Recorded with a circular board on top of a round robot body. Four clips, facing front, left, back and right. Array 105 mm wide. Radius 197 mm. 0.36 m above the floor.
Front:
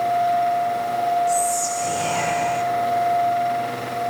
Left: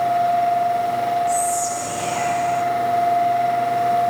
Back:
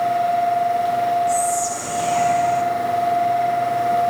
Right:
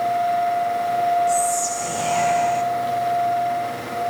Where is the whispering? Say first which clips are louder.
Even, back 1 dB; 35° right, 3 m.